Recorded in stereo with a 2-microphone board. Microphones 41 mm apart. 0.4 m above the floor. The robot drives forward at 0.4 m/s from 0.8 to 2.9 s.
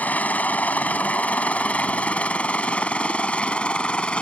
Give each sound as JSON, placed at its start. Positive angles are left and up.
{"t": 0.0, "sound": "a helicopter", "side_deg": 45}